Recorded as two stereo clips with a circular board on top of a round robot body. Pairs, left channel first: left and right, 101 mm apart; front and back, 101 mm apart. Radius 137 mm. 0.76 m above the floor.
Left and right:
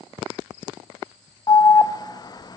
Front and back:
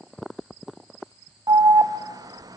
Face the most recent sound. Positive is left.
turn(degrees=135)